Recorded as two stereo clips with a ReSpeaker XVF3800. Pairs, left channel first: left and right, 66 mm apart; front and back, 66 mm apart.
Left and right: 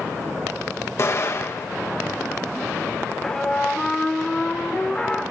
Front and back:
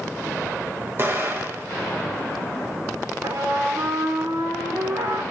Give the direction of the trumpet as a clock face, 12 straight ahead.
6 o'clock.